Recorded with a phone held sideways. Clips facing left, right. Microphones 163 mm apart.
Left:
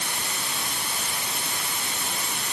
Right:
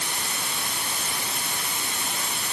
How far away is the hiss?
No hiss in this recording.